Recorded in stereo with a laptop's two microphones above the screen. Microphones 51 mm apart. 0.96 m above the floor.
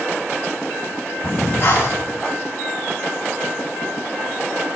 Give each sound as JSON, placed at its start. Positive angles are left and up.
{"t": 1.2, "sound": "breathing", "side_deg": 50, "distance_m": 1.3}